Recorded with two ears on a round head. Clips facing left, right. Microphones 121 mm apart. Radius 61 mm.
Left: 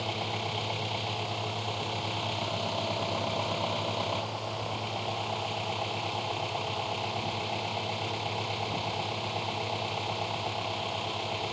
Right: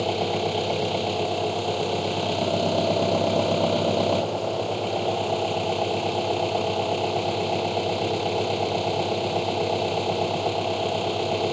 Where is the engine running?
55° right (ahead or behind).